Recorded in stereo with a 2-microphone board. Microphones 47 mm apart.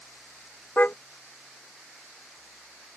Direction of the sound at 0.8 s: 35° left (ahead or behind).